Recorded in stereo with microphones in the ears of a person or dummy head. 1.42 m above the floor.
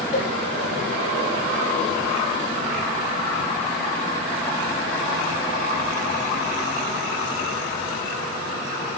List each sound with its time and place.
0.1 s a cowbell: 40° left (ahead or behind), 3 m